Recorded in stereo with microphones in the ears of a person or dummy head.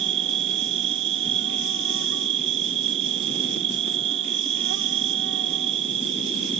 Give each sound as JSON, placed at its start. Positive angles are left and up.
{"t": 0.0, "sound": "an insect", "side_deg": -70}